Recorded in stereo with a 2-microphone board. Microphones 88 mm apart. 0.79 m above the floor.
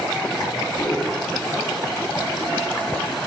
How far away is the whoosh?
About 2.5 m.